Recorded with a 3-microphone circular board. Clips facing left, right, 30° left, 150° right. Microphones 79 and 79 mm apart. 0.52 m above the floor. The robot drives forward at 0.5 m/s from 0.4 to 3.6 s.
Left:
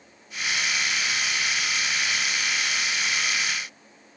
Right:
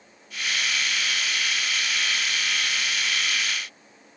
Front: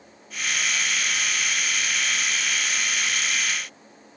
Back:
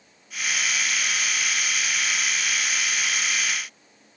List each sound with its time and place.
Only background noise.